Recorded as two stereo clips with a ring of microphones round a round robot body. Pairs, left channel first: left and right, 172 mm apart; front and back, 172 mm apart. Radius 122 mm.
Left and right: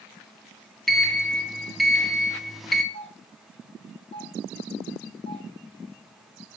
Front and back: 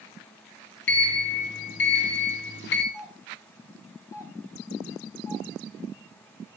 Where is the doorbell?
60° left, 2.5 m.